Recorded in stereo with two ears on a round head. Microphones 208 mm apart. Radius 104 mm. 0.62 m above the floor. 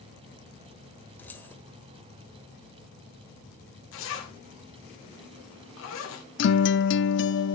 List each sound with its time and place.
1.2 s keys jangling: 10° left (ahead or behind), 1.3 m
3.9 s a zipper: 60° left (ahead or behind), 2.5 m
6.4 s a guitar: 50° left (ahead or behind), 0.6 m